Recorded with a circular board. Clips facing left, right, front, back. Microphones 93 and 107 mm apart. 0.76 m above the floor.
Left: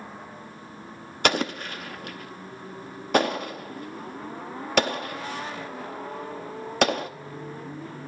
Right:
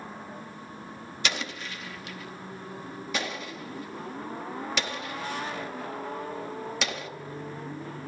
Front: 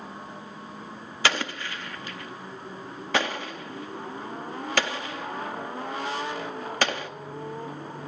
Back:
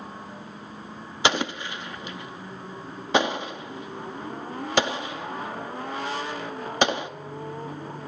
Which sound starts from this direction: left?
An explosion, at 1.2 s.